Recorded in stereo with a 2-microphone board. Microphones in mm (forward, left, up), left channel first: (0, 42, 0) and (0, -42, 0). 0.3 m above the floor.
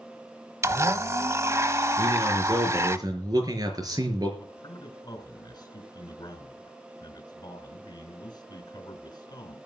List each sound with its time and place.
0.6 s a blender: 35° right (ahead or behind), 0.9 m
2.0 s a man speaking: 45° right (ahead or behind), 4.5 m
4.4 s a man speaking: 50° left (ahead or behind), 4 m